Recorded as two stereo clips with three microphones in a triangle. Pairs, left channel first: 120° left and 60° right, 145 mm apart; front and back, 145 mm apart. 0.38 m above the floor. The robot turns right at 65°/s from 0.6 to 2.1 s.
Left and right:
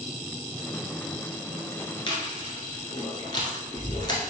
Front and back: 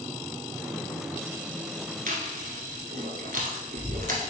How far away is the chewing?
About 1.2 m.